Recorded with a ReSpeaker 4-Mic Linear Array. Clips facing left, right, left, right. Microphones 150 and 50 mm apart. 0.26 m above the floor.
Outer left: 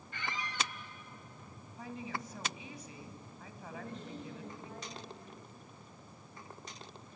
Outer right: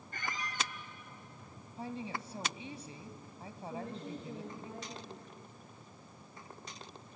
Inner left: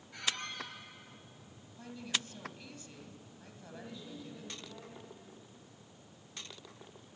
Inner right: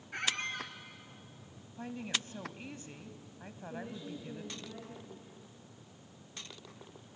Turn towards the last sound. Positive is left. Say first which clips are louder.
# outer right 3 dB, inner right 4 dB
turn(degrees=-30)  # may be behind; listen again after turning